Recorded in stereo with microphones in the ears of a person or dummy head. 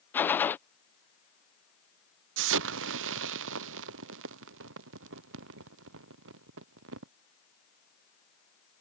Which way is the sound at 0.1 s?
15° left (ahead or behind).